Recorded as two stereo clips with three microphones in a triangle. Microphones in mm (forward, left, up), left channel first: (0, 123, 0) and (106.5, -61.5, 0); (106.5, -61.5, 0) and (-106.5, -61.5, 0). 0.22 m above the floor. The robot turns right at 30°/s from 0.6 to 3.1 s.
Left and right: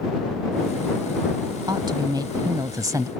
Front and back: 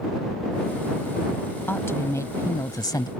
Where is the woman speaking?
60° right; by 3.1 s 20° right.